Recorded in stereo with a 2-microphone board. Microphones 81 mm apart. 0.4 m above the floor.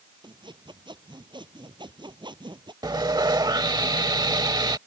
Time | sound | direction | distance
0.2 | sawing | 75° right (ahead or behind) | ?
2.8 | sawing | 60° right (ahead or behind) | ?